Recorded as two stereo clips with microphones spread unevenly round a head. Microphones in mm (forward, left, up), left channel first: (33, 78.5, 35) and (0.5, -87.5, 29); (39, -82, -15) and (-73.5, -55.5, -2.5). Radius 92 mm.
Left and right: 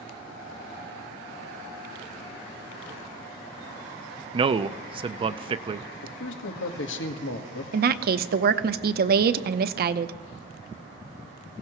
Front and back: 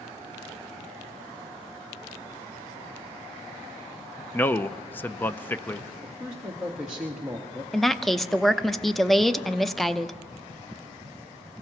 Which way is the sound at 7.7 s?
100° right.